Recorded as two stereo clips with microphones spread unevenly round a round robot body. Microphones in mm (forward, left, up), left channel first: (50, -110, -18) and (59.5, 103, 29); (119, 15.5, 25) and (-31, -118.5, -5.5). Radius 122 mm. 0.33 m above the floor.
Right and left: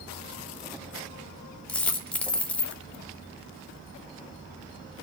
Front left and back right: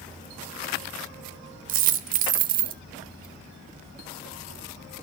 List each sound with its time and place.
1.7 s a dropped coin: 165° right, 0.6 m